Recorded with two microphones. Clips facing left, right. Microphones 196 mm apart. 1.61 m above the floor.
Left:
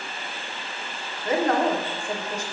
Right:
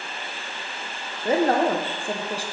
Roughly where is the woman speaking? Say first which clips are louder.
Right 2 dB; right.